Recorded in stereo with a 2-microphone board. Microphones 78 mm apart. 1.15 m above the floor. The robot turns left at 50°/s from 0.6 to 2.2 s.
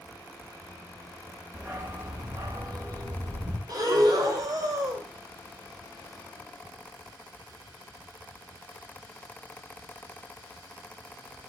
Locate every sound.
1.5 s a dog barking: 30° right, 2.5 m; by 3.6 s 60° right, 2.5 m
3.7 s breathing: 55° right (ahead or behind), 2.5 m